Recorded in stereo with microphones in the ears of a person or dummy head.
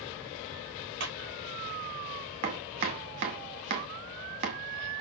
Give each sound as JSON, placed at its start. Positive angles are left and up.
{"t": 1.0, "sound": "a clap", "side_deg": -60, "distance_m": 2.0}
{"t": 2.4, "sound": "chopping", "side_deg": -35, "distance_m": 0.7}